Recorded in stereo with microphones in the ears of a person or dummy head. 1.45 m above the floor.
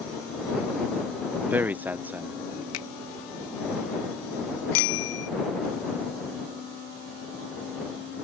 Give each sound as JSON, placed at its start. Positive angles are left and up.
{"t": 1.4, "sound": "a man speaking", "side_deg": -10}
{"t": 2.7, "sound": "a finger snap", "side_deg": 85}
{"t": 4.7, "sound": "a bicycle bell", "side_deg": 70}